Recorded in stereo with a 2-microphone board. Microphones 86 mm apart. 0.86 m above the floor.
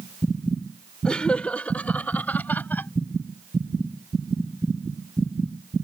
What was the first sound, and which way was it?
Laughter, 10° left (ahead or behind).